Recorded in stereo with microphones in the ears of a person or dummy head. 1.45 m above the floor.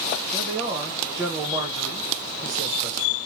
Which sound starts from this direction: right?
A man speaking, at 0.3 s.